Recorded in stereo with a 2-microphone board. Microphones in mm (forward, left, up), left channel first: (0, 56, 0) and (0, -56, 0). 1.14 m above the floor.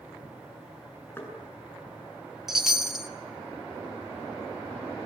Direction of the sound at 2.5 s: 5° right (ahead or behind).